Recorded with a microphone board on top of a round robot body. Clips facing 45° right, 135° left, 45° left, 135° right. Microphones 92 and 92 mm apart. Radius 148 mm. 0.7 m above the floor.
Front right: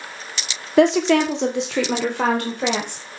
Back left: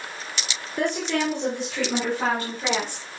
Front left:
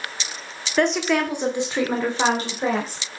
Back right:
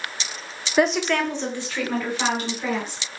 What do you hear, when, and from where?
0.8 s a woman speaking: 50° right, 1.8 m; by 3.0 s 10° right, 4 m